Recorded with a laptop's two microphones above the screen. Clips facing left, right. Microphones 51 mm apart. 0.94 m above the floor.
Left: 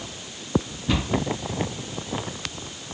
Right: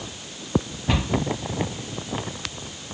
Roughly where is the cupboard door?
Right.